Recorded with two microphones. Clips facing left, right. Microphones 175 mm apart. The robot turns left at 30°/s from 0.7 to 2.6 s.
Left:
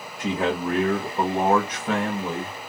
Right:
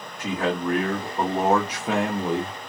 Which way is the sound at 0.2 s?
20° left.